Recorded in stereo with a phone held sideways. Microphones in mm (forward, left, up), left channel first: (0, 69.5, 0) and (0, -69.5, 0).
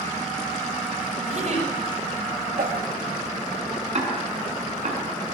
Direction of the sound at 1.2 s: 55° right (ahead or behind).